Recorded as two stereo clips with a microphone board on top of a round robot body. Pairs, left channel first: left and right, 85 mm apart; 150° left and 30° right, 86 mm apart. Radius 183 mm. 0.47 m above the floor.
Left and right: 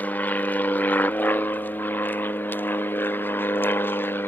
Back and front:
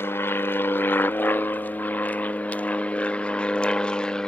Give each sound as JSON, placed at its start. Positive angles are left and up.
{"t": 0.0, "sound": "an aircraft", "azimuth_deg": 135}